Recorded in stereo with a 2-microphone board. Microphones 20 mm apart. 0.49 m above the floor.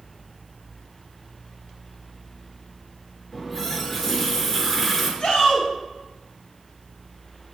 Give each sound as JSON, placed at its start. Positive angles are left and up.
{"t": 3.3, "sound": "a running tap", "side_deg": 15, "distance_m": 4.5}
{"t": 5.2, "sound": "a shout", "side_deg": 65, "distance_m": 3.0}